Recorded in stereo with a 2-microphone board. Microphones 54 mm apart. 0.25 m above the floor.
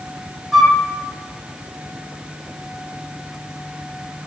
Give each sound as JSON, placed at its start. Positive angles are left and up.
{"t": 0.5, "sound": "a flute", "side_deg": 0, "distance_m": 1.5}